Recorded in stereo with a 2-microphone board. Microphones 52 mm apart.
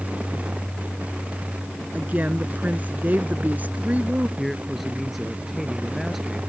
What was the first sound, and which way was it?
A woman speaking, 30° right (ahead or behind).